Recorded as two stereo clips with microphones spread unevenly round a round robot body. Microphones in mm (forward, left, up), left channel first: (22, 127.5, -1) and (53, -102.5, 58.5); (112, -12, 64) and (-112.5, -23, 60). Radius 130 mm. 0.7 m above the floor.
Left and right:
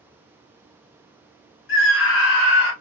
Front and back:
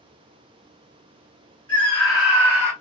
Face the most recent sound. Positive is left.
turn(degrees=105)